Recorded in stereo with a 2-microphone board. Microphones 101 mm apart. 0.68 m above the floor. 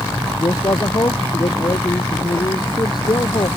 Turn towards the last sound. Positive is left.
turn(degrees=45)  # may be behind; listen again after turning